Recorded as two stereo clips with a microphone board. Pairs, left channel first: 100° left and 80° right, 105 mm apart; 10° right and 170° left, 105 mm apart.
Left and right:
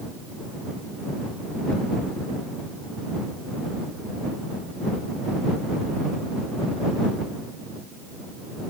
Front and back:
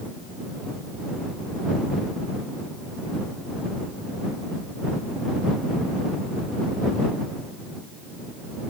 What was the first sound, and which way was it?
Only background noise.